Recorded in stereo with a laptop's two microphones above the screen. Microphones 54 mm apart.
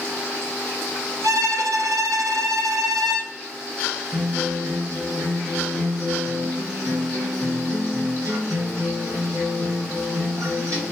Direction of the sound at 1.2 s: 80° right.